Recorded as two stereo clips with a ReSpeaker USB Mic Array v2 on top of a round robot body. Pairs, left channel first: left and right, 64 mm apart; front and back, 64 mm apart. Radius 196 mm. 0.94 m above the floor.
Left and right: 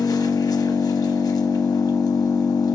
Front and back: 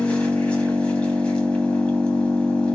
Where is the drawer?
No drawer in this recording.